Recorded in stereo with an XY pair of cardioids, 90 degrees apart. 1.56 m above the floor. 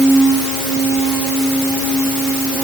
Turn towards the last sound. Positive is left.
No sound to turn to.